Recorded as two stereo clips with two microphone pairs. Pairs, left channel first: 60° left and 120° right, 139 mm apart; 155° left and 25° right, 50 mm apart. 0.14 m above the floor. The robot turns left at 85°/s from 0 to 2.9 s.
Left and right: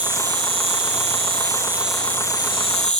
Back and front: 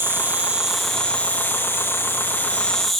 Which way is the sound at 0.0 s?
45° right.